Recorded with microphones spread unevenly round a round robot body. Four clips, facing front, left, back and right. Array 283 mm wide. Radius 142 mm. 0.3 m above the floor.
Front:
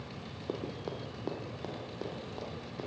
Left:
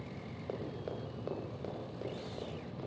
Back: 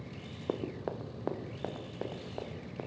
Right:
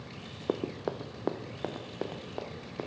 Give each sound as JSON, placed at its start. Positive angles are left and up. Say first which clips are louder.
{"t": 0.5, "sound": "running footsteps", "louder": "right 8 dB, back 3 dB", "azimuth_deg": -105, "distance_m": 1.9}